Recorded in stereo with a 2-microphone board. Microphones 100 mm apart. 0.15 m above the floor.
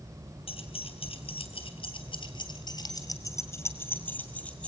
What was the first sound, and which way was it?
Keys jangling, 70° left (ahead or behind).